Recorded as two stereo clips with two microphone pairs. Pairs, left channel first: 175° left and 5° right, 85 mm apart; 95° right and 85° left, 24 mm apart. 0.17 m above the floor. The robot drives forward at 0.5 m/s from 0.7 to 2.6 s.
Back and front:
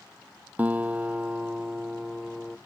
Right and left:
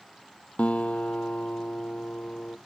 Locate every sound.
0.6 s a guitar: 75° right; by 2.6 s 95° right